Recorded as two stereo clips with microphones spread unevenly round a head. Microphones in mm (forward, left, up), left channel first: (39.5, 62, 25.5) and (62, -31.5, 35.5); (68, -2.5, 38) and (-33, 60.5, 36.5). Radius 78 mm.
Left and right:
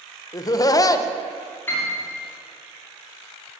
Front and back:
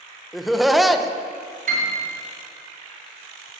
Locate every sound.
0.3 s laughter: 60° left, 1.1 m
1.7 s a piano: straight behind, 2.5 m